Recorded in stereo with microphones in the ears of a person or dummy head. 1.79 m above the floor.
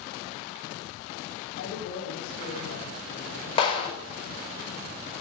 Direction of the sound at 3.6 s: 35° left (ahead or behind).